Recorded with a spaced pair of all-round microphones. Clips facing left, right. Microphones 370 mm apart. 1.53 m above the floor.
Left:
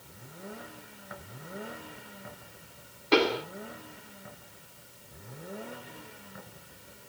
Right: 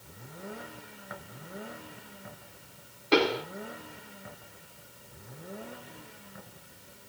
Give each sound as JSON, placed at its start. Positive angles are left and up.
{"t": 3.1, "sound": "a pop", "side_deg": 0, "distance_m": 1.8}